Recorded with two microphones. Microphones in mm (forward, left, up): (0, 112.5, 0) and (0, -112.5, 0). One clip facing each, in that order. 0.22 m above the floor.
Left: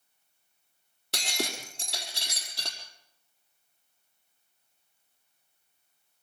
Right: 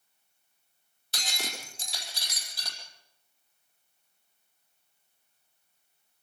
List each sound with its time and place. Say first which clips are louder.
1.1 s breaking glass: left 7 dB; 80° left, 4 m